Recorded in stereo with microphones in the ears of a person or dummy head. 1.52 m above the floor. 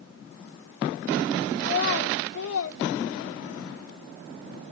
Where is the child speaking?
45° left (ahead or behind), 0.7 m; by 3.7 s 70° left (ahead or behind), 1.5 m.